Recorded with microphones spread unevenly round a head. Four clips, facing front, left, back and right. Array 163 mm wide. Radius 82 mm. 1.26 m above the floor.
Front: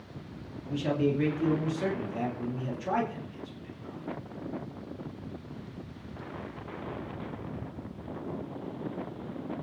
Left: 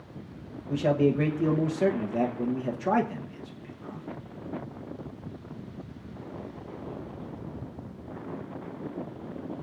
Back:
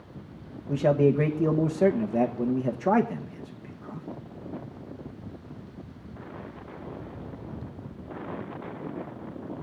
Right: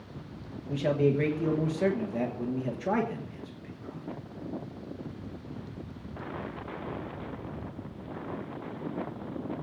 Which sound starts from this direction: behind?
A man speaking, at 0.7 s.